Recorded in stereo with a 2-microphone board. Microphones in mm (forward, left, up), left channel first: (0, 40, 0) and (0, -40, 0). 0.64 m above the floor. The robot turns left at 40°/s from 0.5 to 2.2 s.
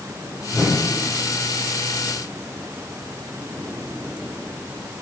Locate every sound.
0.5 s a whoosh: 30° left (ahead or behind), 2.5 m; by 1.0 s 15° left (ahead or behind), 2.5 m